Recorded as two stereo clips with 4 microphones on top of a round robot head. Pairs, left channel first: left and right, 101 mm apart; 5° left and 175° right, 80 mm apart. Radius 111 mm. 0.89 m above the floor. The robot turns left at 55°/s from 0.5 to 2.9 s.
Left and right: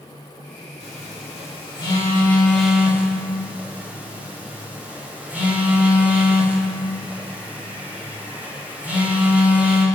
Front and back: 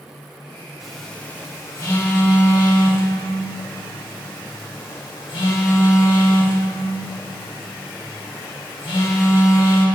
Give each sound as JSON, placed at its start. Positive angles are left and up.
{"t": 0.8, "sound": "a phone buzzing", "azimuth_deg": 100, "distance_m": 5.0}